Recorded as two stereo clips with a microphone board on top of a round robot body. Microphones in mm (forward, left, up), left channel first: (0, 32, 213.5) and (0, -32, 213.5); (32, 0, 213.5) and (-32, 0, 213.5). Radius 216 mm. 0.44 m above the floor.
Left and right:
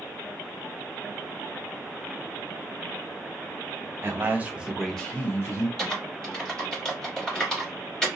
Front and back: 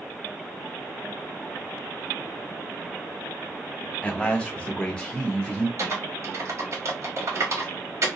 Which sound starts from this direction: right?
A man speaking, at 4.0 s.